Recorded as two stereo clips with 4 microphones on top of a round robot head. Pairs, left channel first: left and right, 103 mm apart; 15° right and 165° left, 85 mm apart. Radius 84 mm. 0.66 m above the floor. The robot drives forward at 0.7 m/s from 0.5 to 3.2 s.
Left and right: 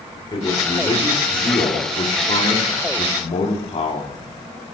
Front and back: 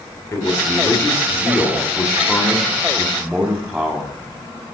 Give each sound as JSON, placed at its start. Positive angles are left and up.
{"t": 0.3, "sound": "a man speaking", "azimuth_deg": 40, "distance_m": 2.5}